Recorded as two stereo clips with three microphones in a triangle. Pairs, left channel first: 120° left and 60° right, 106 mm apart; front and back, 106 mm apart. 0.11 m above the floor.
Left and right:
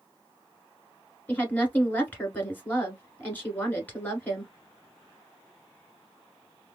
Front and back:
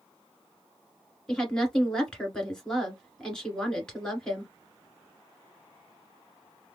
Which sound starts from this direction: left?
A woman speaking, at 1.3 s.